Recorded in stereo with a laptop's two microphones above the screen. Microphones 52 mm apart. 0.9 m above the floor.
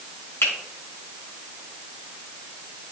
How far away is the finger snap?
About 3 m.